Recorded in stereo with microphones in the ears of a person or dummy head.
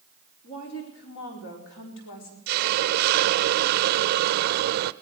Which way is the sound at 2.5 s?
55° right (ahead or behind).